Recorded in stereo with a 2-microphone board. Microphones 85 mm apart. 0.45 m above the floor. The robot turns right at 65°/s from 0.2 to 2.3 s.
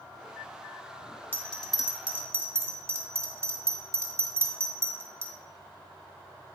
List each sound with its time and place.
1.3 s a bell: 20° left (ahead or behind), 1.0 m; by 5.3 s 30° right (ahead or behind), 1.0 m